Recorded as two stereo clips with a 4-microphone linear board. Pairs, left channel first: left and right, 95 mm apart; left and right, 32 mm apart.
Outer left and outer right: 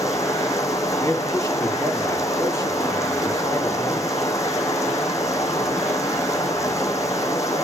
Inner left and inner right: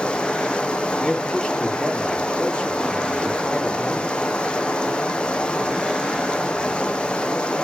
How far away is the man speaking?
About 3.5 m.